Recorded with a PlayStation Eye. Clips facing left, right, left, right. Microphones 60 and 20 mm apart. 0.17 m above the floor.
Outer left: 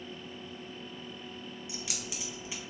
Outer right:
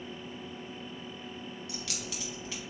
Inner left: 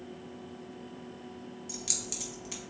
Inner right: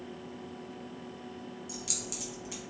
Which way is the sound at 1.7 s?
20° left (ahead or behind).